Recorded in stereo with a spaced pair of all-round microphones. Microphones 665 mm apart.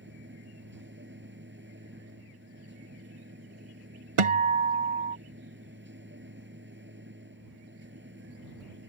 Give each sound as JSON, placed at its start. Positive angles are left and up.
{"t": 0.0, "sound": "a machine running", "side_deg": -15}
{"t": 4.2, "sound": "a guitar", "side_deg": -50}